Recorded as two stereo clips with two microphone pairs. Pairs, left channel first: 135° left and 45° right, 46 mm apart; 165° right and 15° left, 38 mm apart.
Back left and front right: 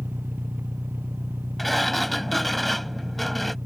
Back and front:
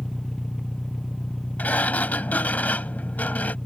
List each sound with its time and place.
0.0 s an engine running: 85° right
1.6 s a sliding door: 135° right